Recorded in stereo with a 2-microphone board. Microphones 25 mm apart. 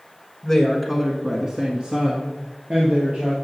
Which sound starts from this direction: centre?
A woman speaking, at 0.4 s.